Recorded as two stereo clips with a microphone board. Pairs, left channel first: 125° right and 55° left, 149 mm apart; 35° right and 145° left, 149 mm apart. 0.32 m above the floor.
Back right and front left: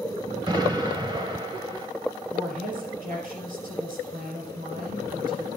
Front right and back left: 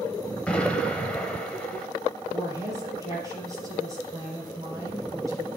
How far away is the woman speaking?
About 5 m.